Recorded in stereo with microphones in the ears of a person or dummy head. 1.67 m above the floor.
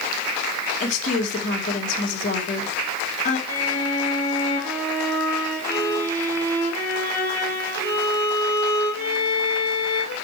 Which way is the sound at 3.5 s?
15° left (ahead or behind).